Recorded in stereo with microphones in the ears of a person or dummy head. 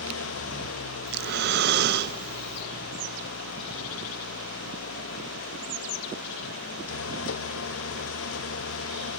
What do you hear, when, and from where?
0.0 s an engine running: 80° left, 0.9 m
1.1 s breathing: 55° right (ahead or behind), 1.2 m